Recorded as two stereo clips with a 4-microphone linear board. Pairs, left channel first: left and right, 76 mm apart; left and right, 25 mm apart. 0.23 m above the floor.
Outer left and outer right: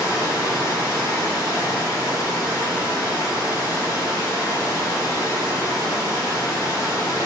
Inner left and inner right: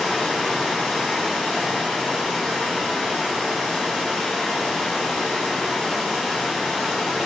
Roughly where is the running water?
Left.